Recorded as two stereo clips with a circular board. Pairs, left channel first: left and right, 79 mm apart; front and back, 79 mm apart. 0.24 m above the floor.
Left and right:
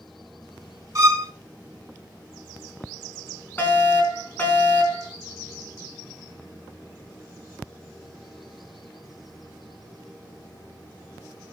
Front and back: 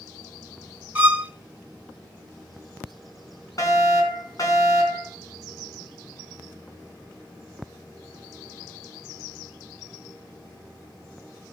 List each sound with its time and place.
0.9 s a violin: 115° right, 1.0 m
3.6 s a fire alarm: 30° left, 3.5 m